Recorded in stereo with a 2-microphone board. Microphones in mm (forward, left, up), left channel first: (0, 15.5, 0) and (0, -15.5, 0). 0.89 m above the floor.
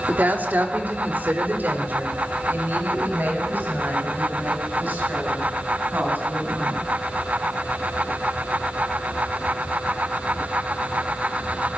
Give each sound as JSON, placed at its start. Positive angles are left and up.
{"t": 0.1, "sound": "a woman speaking", "side_deg": -70, "distance_m": 2.5}